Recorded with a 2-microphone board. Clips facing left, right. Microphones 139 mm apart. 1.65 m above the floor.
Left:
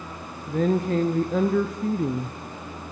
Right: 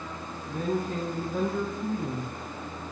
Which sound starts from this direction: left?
A woman speaking, at 0.5 s.